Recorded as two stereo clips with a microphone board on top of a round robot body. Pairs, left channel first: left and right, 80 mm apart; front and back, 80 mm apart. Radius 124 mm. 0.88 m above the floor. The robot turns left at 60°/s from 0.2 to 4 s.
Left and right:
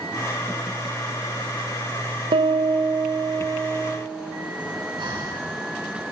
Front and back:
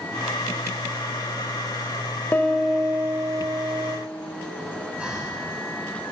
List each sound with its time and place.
2.3 s a piano: 70° right, 1.5 m; by 4.0 s 170° right, 1.5 m
5.0 s breathing: 105° right, 9 m